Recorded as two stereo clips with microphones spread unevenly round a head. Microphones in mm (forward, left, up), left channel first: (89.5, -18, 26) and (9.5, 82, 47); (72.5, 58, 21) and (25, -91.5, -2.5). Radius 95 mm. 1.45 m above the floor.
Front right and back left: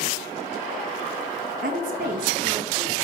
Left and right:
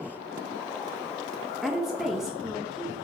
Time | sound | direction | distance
1.6 | a woman speaking | 165° left | 0.8 m